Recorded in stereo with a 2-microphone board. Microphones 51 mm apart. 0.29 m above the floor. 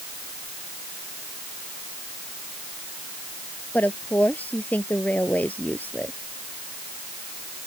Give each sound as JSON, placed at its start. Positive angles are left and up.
{"t": 3.7, "sound": "a woman speaking", "side_deg": 35}